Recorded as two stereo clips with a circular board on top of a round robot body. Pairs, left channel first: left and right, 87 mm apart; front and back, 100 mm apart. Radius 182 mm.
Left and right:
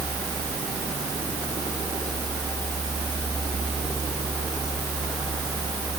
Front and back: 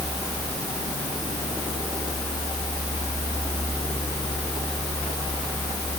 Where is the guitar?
No guitar in this recording.